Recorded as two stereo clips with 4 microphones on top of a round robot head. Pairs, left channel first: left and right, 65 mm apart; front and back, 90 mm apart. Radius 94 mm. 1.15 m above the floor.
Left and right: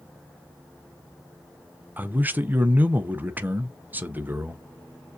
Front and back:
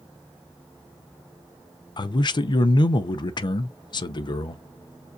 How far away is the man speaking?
About 0.6 m.